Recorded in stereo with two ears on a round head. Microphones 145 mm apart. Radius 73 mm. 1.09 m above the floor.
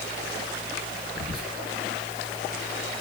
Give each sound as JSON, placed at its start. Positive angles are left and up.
{"t": 1.1, "sound": "whispering", "side_deg": -65, "distance_m": 1.6}